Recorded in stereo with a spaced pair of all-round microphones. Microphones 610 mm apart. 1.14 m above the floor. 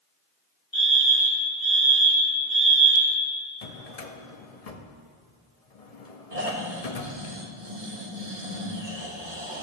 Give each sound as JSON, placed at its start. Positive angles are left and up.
{"t": 0.7, "sound": "a fire alarm", "side_deg": 45, "distance_m": 3.0}
{"t": 3.6, "sound": "a drawer", "side_deg": 75, "distance_m": 1.0}
{"t": 6.3, "sound": "snoring", "side_deg": -65, "distance_m": 1.6}